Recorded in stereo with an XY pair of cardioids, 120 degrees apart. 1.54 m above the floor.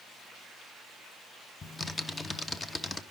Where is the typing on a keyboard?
20° left, 0.8 m.